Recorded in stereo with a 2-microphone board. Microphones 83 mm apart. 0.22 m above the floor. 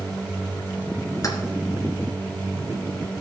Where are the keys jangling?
40° left (ahead or behind), 2.0 m.